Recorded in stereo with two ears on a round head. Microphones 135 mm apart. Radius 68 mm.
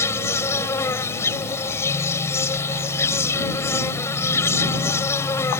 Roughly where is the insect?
Centre.